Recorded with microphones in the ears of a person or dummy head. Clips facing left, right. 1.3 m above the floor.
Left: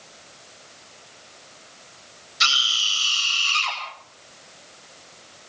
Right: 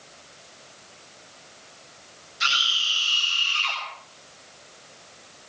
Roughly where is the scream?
Left.